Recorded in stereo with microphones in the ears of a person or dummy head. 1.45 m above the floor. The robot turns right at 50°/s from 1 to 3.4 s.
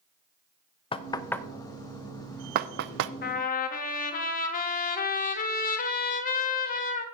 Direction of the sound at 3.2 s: 60° left (ahead or behind).